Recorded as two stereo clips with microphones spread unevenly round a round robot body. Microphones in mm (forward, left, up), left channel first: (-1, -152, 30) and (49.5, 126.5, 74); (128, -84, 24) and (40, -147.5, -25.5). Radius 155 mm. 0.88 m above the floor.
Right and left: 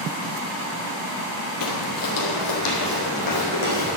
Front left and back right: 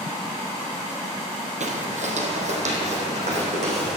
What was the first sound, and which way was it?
Footsteps, 125° right.